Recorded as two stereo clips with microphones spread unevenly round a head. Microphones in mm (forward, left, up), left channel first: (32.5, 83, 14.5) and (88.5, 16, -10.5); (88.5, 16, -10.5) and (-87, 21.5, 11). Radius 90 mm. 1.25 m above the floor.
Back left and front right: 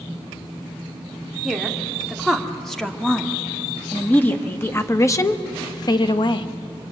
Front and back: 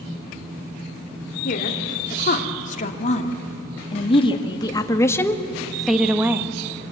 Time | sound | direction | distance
1.4 | a woman speaking | 40° left | 3 m